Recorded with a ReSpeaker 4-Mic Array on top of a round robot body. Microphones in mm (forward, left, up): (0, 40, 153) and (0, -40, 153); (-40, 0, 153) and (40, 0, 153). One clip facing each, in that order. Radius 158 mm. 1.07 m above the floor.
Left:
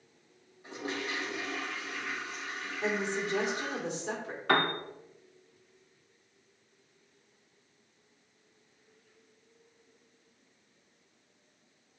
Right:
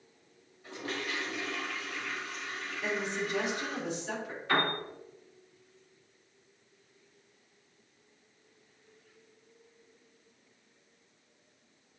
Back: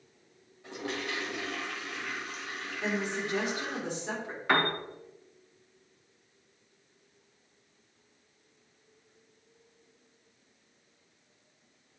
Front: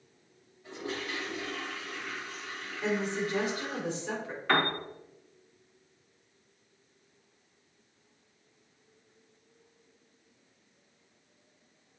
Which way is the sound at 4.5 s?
100° left.